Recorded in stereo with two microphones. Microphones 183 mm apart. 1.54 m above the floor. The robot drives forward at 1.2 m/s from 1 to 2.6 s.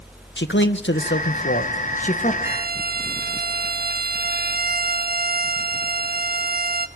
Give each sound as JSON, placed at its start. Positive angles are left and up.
{"t": 0.4, "sound": "a man speaking", "side_deg": 85, "distance_m": 1.3}
{"t": 2.4, "sound": "a violin", "side_deg": -55, "distance_m": 1.3}